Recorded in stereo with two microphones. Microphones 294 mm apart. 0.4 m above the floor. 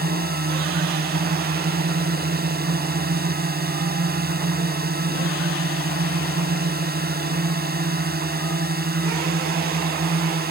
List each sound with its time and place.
0.0 s a drone: 30° right (ahead or behind)